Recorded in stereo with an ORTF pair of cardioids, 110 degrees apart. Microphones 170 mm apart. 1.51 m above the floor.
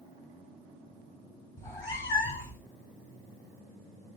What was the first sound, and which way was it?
A cat meowing, 20° left.